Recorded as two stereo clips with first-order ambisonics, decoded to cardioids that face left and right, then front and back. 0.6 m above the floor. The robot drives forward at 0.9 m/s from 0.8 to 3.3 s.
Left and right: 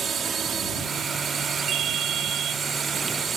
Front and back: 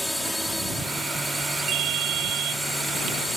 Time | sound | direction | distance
0.0 | a drone | 90° right | ?
1.7 | a ringtone | 140° right | ?